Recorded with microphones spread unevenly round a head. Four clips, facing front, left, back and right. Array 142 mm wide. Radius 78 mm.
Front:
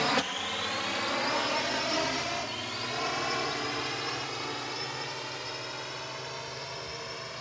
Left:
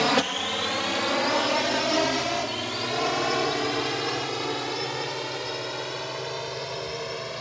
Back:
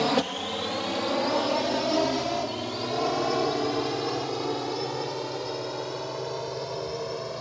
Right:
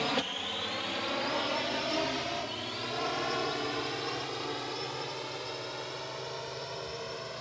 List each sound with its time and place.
0.0 s a drone: 145° left; by 7.4 s 155° left